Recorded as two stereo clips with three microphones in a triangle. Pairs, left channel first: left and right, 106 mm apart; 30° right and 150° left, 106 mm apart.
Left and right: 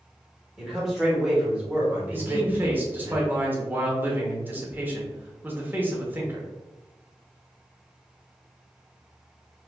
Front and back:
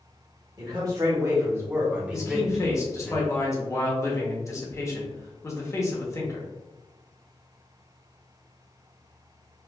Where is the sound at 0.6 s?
175° right, 1.6 m; by 3.1 s 85° right, 1.2 m.